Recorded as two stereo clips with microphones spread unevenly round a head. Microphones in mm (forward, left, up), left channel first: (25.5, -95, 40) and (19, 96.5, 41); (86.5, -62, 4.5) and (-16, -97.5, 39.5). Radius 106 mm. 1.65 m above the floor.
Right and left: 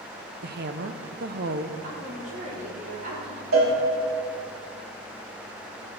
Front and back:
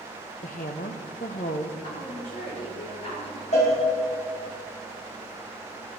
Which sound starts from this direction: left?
A cowbell, at 3.5 s.